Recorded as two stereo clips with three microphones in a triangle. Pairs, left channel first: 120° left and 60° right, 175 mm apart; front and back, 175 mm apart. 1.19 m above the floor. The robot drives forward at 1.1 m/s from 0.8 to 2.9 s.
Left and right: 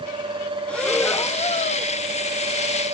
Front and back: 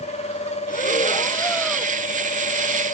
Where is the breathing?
35° left; by 1.9 s 105° left.